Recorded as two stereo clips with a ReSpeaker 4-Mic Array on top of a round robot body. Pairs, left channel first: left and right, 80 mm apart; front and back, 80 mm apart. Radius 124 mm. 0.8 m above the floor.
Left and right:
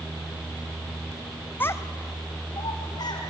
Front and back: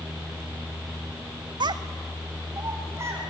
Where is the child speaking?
155° left, 0.6 m; by 3.2 s 120° left, 2.5 m.